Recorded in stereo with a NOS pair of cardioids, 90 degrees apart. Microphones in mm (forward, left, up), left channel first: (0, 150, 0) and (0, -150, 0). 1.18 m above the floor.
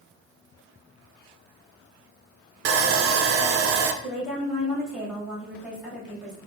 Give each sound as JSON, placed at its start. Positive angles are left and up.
{"t": 2.6, "sound": "sawing", "azimuth_deg": -50, "distance_m": 0.6}
{"t": 4.0, "sound": "a woman speaking", "azimuth_deg": 0, "distance_m": 2.0}